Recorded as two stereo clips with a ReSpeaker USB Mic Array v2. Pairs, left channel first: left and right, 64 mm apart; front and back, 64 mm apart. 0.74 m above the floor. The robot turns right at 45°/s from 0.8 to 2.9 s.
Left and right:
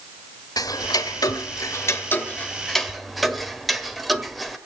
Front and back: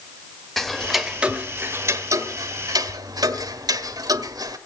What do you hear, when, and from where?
0.6 s ticking: 85° left, 1.6 m; by 4.6 s straight behind, 1.6 m